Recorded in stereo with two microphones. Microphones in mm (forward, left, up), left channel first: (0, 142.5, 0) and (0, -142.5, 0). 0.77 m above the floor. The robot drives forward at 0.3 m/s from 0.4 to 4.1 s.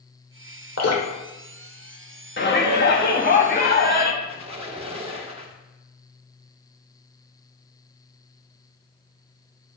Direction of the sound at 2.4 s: 40° left (ahead or behind).